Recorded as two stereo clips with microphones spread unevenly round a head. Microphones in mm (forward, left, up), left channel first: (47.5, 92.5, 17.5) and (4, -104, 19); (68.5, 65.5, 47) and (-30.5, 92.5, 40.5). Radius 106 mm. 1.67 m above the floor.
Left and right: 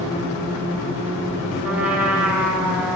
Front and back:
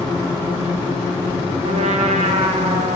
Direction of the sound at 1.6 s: 175° left.